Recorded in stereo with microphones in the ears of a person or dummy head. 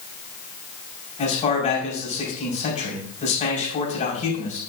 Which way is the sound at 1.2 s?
35° left (ahead or behind).